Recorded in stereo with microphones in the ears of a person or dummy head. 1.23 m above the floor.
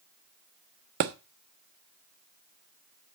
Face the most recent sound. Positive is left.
turn(degrees=-45)  # may be behind; listen again after turning